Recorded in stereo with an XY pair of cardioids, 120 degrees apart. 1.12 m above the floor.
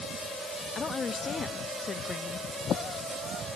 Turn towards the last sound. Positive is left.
turn(degrees=35)